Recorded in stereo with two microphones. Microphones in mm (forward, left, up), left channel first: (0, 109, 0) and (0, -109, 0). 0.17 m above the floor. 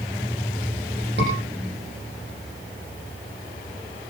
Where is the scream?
55° right (ahead or behind), 8.5 m.